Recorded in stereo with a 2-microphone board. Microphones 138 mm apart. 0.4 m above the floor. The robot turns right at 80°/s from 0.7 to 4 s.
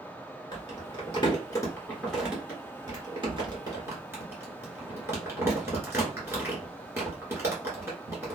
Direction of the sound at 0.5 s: 25° left (ahead or behind).